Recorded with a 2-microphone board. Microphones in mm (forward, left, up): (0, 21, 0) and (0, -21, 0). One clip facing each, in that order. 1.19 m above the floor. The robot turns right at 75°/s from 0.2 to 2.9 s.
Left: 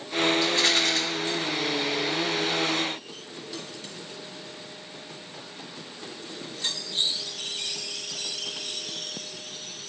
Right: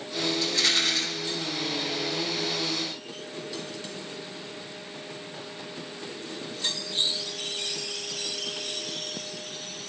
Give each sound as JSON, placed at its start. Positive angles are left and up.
{"t": 0.4, "sound": "a rattle", "azimuth_deg": 20, "distance_m": 3.0}